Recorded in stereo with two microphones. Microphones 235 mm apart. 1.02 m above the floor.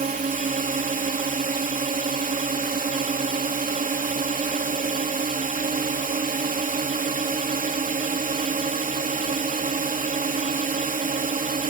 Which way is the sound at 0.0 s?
35° right (ahead or behind).